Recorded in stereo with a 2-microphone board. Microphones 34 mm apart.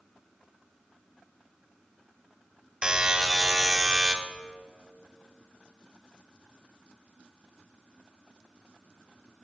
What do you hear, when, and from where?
2.8 s a buzzer: 25° right (ahead or behind), 1.5 m